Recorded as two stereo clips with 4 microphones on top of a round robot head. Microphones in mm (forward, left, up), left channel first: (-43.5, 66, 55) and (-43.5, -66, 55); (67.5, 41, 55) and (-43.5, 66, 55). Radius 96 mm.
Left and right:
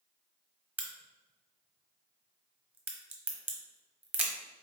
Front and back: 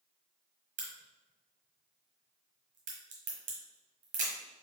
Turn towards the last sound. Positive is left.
turn(degrees=-165)